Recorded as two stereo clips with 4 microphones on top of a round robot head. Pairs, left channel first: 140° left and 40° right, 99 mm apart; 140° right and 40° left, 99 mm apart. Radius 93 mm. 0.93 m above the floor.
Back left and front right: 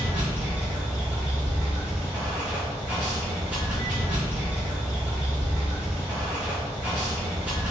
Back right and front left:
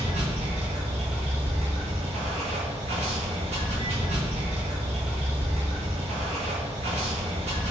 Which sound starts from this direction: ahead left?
Running water, at 0.0 s.